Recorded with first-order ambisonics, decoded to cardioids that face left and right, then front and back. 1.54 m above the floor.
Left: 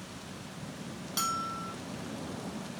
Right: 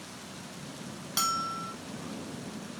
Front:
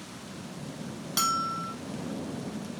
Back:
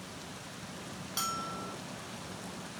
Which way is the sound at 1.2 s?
25° right.